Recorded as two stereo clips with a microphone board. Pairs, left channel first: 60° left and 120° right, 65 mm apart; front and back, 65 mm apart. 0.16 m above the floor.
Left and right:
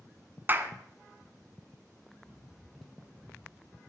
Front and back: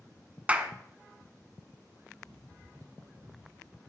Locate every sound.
0.5 s a clap: 125° right, 1.2 m
2.2 s running footsteps: 160° left, 4 m; by 3.8 s 135° left, 4.5 m